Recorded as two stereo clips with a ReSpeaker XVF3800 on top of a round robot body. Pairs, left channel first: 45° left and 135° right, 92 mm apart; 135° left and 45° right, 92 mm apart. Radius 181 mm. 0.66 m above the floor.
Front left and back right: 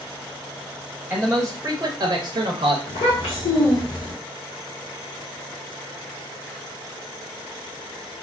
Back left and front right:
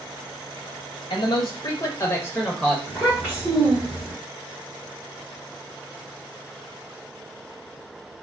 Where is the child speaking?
30° left, 1.3 m.